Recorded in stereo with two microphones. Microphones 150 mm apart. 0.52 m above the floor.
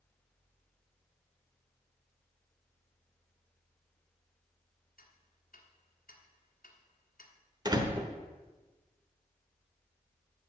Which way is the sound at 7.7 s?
25° right (ahead or behind).